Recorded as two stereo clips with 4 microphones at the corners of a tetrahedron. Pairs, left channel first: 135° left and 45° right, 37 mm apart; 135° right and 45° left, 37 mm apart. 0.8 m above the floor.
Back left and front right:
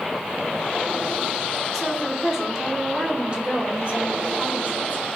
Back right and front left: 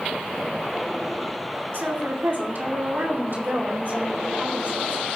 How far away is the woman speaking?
About 2.5 m.